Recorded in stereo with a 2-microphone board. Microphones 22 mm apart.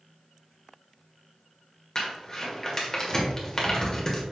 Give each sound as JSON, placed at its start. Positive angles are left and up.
{"t": 1.9, "sound": "crumpling", "side_deg": 25, "distance_m": 1.8}